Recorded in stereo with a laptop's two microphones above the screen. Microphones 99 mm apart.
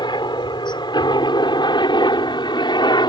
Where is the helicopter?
50° left (ahead or behind).